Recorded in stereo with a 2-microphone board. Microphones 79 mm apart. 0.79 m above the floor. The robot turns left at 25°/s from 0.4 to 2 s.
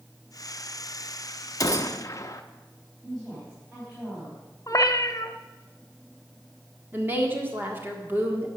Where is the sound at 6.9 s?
25° right (ahead or behind), 1.7 m.